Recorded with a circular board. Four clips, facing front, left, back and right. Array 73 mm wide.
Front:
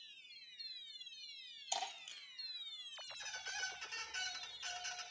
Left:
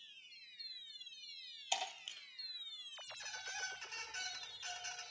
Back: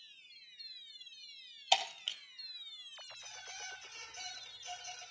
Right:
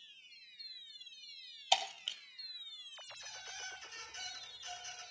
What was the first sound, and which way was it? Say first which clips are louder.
Breaking glass: right 7 dB, back 10 dB; 155° right.